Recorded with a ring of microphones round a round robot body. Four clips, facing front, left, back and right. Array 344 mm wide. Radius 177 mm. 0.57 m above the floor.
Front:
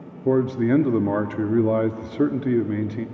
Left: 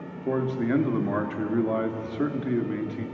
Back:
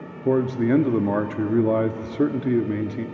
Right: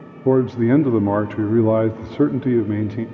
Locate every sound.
0.2 s a man speaking: 85° right, 0.9 m